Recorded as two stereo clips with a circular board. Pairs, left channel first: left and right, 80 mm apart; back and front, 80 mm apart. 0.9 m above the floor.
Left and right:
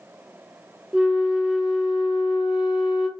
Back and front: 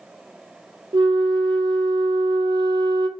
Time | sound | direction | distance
0.9 | a flute | 10° right | 0.8 m